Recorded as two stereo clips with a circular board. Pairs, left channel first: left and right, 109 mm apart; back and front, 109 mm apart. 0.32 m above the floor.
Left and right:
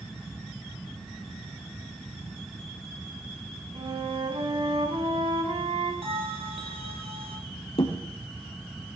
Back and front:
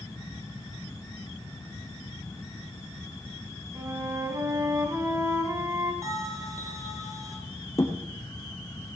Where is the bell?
60° right, 5.5 m.